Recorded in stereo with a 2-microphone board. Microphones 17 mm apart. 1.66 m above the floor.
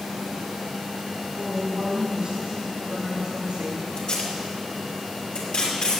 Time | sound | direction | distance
1.4 | a woman speaking | 40° right (ahead or behind) | 4 m
4.0 | tape being pulled | 75° left (ahead or behind) | 3 m